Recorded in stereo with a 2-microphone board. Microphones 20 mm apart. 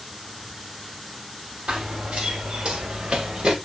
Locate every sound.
1.7 s running footsteps: 70° right (ahead or behind), 5 m; by 3.6 s 55° right (ahead or behind), 4.5 m